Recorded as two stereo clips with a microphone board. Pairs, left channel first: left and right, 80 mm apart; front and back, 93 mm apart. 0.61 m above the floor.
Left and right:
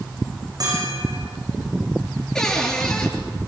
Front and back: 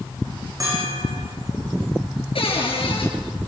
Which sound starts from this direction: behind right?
A bell, at 0.6 s.